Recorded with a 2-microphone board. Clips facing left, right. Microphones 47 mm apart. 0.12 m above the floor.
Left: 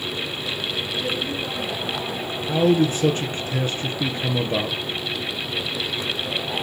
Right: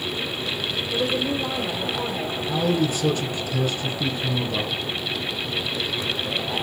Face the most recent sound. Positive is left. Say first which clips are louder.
# left 5 dB
turn(degrees=40)  # may be behind; listen again after turning